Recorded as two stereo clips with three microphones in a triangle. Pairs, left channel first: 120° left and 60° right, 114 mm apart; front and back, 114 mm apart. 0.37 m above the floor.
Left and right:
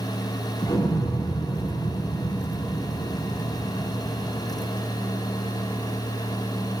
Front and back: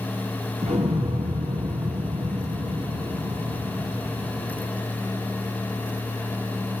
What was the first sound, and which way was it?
An explosion, straight behind.